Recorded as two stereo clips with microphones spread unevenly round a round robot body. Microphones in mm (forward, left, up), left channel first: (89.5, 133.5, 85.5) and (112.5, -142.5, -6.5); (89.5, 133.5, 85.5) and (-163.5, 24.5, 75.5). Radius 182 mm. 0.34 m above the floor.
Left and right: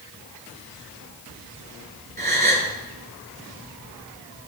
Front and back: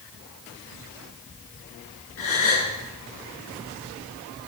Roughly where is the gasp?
Ahead right.